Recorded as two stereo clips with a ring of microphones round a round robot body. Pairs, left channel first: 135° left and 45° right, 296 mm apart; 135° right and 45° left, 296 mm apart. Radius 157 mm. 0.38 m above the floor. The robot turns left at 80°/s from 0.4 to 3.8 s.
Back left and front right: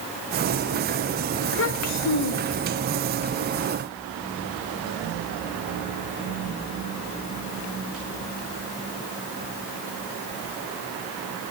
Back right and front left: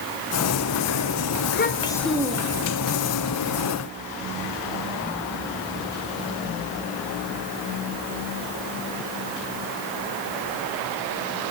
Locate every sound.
1.4 s a child speaking: 170° right, 1.2 m; by 2.8 s 80° left, 1.2 m